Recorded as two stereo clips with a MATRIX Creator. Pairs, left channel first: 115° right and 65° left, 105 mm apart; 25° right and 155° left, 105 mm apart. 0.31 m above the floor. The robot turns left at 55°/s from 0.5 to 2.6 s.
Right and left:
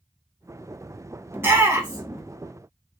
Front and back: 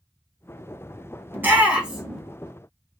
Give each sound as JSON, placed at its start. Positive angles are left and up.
{"t": 1.3, "sound": "a shout", "azimuth_deg": 110, "distance_m": 0.9}